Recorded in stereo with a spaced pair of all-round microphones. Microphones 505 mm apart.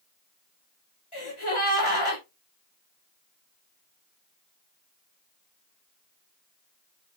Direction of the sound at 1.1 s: 75° left (ahead or behind).